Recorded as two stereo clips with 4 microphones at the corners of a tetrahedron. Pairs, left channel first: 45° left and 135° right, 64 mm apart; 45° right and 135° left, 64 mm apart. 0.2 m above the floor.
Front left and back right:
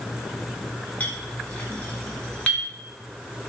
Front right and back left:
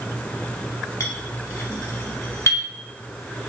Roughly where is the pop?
No pop in this recording.